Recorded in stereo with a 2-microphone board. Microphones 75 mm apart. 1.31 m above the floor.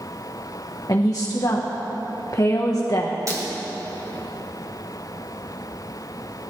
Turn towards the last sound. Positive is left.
turn(degrees=-45)  # may be behind; listen again after turning